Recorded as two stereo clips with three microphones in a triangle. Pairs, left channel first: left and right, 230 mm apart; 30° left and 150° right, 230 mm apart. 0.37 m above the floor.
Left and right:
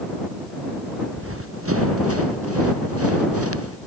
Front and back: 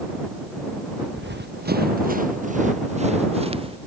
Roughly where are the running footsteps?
Right.